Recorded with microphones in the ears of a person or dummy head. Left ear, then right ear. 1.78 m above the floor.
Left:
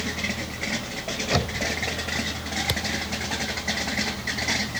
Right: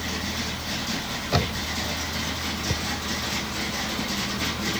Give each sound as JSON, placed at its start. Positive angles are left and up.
{"t": 1.3, "sound": "knocking", "side_deg": 10}
{"t": 2.7, "sound": "a thud", "side_deg": 30}